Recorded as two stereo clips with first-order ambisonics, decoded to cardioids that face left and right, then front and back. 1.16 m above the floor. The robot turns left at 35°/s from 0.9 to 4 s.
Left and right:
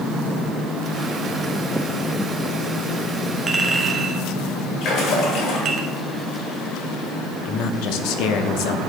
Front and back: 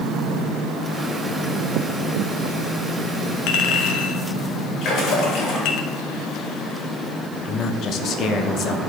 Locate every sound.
3.5 s a clink: 15° right, 0.8 m; by 5.8 s 35° right, 0.8 m
4.8 s a splash: 50° left, 2 m
7.5 s a man speaking: 55° left, 0.7 m